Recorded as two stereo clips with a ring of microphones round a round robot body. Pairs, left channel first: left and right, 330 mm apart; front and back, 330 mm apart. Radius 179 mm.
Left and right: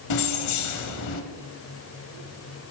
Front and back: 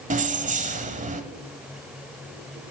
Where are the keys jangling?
115° left, 1.1 m.